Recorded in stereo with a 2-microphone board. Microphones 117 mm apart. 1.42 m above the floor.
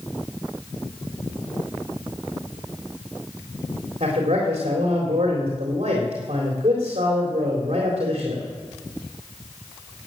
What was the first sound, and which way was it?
A man speaking, 60° right (ahead or behind).